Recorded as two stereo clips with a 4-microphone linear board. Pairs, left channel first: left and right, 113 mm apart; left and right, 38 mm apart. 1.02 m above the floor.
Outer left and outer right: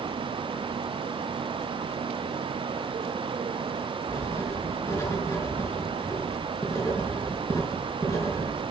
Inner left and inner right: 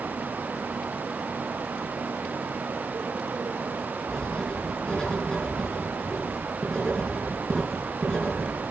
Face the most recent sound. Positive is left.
turn(degrees=25)  # may be behind; listen again after turning